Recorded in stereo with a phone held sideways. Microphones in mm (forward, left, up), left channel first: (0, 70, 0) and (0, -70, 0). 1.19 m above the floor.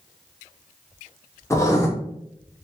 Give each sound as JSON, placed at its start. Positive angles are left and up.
{"t": 1.5, "sound": "writing", "side_deg": 20, "distance_m": 0.6}